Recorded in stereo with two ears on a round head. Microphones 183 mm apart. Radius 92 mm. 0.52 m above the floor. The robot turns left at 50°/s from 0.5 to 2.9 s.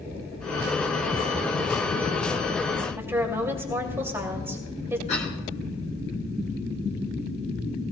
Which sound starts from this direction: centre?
A woman speaking, at 3.0 s.